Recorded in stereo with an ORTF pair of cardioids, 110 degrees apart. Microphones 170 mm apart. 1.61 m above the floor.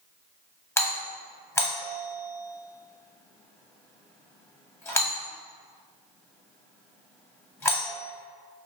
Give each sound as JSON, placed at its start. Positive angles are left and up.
{"t": 0.8, "sound": "a doorbell", "azimuth_deg": 15, "distance_m": 0.7}